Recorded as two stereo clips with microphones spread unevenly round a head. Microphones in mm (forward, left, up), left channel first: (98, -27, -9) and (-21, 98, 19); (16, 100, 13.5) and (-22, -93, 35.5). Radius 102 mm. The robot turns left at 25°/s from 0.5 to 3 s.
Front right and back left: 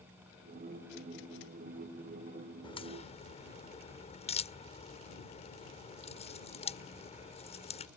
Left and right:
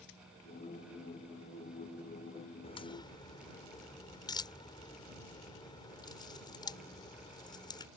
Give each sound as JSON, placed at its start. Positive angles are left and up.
{"t": 2.6, "sound": "a crack", "azimuth_deg": 15}